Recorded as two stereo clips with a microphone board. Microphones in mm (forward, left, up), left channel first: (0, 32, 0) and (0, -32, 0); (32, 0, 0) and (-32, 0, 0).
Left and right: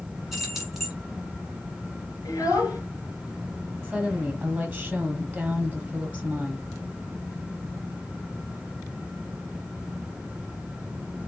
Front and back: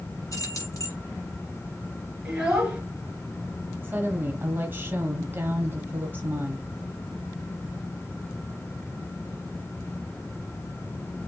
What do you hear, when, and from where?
0.3 s keys jangling: 5° right, 1.9 m
2.2 s a child speaking: 105° left, 2 m
3.8 s a woman speaking: 160° right, 1.1 m